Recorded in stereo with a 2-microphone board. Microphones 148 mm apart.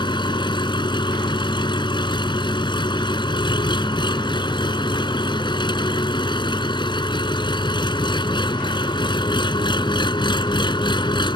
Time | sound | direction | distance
0.0 | an engine running | 30° left (ahead or behind) | ?